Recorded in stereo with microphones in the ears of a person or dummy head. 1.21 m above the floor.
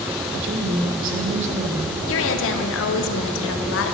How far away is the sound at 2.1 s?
About 1.2 m.